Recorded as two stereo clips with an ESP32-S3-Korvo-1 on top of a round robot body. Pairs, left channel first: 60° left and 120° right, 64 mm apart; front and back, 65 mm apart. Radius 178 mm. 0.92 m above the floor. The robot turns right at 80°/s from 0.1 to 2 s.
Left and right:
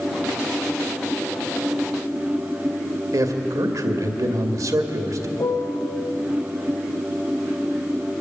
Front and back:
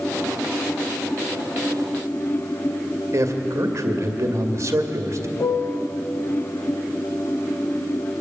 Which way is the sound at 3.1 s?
140° right.